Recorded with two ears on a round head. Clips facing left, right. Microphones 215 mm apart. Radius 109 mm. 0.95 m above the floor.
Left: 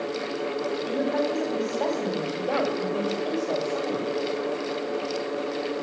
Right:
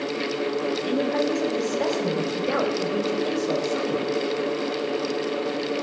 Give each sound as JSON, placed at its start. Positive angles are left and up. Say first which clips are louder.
{"t": 0.8, "sound": "a woman speaking", "louder": "even", "side_deg": -40, "distance_m": 7.0}